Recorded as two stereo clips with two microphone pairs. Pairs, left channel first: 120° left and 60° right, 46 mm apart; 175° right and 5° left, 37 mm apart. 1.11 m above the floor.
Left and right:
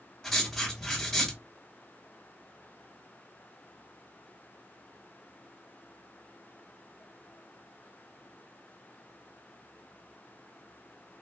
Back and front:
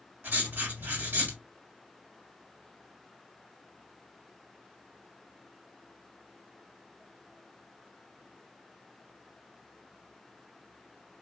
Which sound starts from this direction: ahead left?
Writing, at 0.2 s.